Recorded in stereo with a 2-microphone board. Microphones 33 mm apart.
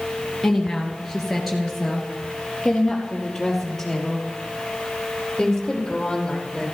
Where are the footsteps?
No footsteps in this recording.